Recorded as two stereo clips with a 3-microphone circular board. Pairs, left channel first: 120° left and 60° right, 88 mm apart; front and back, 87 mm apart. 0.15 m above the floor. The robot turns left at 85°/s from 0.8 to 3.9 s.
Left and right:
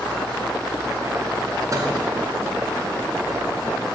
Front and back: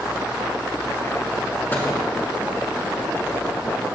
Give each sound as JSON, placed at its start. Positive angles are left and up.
{"t": 1.7, "sound": "a microwave", "azimuth_deg": -50, "distance_m": 1.2}